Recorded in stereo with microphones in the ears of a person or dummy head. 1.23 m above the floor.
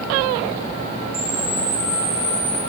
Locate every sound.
1.1 s a camera shutter: 10° right (ahead or behind), 2.0 m